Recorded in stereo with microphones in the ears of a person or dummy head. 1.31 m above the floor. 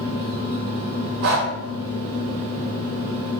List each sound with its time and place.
0.0 s a fan: 40° right (ahead or behind), 1.7 m
1.2 s breathing: 55° right (ahead or behind), 0.6 m